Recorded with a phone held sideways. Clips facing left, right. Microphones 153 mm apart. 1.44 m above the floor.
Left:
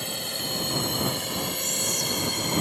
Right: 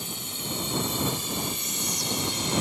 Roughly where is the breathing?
No breathing in this recording.